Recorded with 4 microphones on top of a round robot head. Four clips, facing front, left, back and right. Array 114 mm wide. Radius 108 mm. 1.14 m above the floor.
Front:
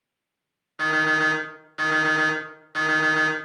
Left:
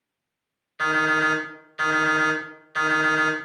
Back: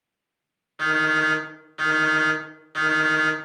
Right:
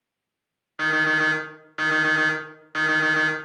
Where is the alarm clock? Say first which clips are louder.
Left 1 dB, even; 80° right, 1.3 m.